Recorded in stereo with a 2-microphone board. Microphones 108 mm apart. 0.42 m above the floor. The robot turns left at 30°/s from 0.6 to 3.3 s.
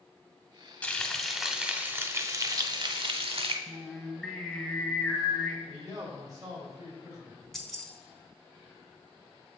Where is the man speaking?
35° right (ahead or behind), 1.9 m.